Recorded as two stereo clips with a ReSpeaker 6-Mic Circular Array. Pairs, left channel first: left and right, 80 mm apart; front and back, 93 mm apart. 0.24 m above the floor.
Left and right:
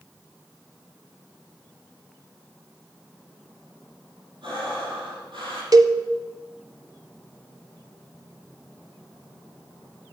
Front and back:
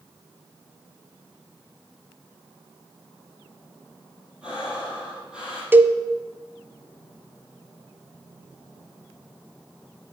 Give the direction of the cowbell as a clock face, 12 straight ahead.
4 o'clock.